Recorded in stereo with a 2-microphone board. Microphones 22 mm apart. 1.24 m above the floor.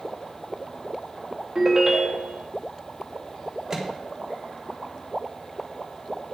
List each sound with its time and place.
1.6 s a ringtone: 20° right (ahead or behind), 1.2 m
3.7 s a microwave: 20° right (ahead or behind), 1.3 m